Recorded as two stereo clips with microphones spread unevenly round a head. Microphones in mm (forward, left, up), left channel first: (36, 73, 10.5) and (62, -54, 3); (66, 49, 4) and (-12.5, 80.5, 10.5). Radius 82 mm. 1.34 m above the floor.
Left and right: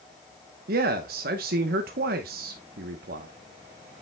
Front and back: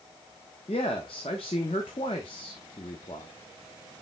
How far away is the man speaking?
About 1.0 m.